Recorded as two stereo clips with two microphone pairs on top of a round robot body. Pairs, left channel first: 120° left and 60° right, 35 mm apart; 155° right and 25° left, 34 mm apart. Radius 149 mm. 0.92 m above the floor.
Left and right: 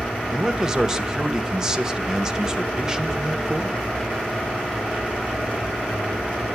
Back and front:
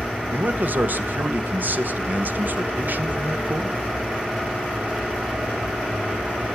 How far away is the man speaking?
About 1.6 m.